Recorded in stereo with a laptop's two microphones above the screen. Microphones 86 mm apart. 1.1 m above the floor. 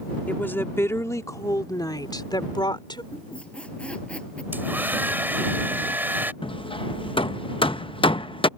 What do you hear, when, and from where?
0.3 s a woman speaking: 20° left (ahead or behind); by 3.0 s 65° left (ahead or behind)
3.1 s a squeak: 15° left (ahead or behind)
4.5 s a hair dryer: 20° right (ahead or behind)
6.4 s hammering: 85° left